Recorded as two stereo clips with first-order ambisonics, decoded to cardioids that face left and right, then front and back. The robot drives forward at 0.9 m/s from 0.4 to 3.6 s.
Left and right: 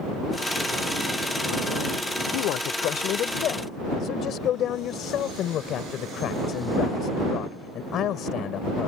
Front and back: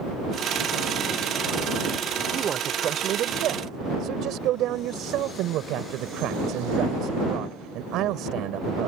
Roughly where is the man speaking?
Behind left.